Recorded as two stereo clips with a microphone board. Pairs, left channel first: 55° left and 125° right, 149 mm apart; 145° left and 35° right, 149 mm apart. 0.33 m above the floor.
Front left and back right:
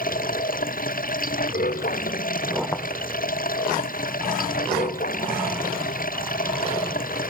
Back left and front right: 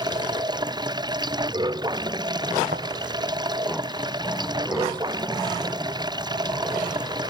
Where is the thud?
15° right.